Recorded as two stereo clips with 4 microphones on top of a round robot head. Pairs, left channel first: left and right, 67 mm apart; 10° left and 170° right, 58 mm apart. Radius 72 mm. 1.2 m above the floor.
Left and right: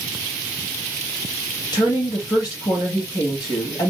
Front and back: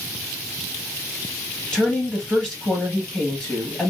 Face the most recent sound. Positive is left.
turn(degrees=95)